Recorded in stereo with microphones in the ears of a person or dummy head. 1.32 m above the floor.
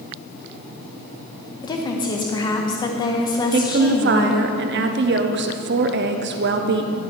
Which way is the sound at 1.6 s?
30° left (ahead or behind).